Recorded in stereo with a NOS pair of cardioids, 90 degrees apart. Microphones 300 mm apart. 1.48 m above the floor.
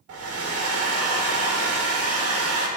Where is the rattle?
No rattle in this recording.